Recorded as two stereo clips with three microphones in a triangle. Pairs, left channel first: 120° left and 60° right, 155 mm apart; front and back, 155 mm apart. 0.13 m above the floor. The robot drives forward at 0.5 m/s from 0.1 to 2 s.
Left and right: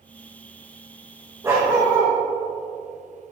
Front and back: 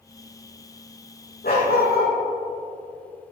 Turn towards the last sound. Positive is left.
turn(degrees=15)